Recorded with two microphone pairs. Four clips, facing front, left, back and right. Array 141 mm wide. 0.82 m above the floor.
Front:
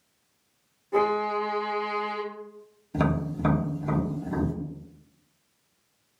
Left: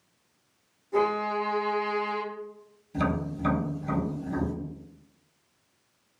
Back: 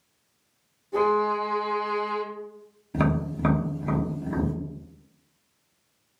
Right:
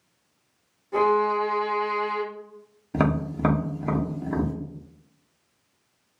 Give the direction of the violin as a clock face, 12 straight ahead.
1 o'clock.